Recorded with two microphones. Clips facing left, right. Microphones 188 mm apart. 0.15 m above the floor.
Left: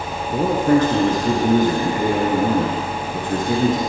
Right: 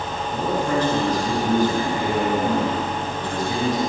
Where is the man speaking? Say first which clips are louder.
Left 7 dB; 55° left (ahead or behind), 2.5 m.